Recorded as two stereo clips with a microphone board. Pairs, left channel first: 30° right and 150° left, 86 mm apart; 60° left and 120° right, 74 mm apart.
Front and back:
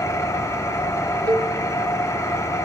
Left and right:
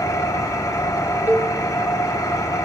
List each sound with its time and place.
0.0 s an engine running: 20° left, 0.9 m
1.3 s a cowbell: 175° left, 1.1 m